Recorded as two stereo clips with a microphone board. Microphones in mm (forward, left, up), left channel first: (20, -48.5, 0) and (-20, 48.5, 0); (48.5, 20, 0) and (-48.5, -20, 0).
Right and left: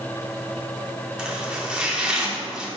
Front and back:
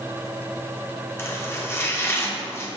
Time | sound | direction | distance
1.2 | chopping | 40° left | 1.0 m